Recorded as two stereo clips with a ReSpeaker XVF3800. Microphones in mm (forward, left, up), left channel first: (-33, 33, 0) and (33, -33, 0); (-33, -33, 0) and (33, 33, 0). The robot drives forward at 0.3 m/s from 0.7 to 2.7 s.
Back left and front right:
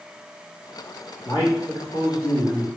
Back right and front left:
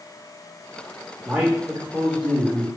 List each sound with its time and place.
1.2 s a man speaking: 120° left, 1.7 m; by 2.7 s 130° left, 1.9 m